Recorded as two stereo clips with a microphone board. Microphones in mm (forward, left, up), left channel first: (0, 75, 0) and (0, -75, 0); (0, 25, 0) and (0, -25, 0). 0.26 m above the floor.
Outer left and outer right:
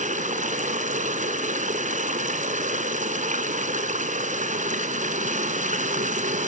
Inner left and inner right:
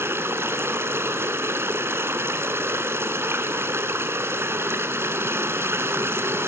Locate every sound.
0.0 s running water: 55° right (ahead or behind), 1.7 m